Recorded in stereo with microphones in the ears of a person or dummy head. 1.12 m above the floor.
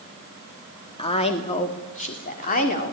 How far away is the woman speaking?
About 2 m.